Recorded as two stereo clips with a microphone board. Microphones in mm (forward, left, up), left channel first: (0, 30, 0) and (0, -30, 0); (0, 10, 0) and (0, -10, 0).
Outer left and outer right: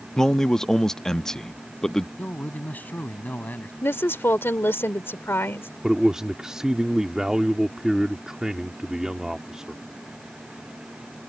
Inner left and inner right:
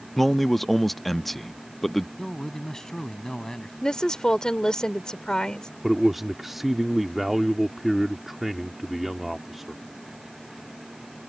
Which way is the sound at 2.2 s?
30° left (ahead or behind).